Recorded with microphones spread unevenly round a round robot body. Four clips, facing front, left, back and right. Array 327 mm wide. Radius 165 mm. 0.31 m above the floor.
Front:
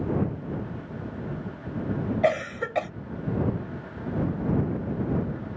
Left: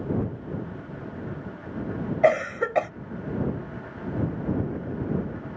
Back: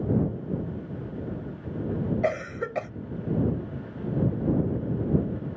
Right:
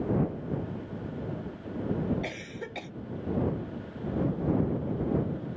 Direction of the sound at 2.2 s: 90° left.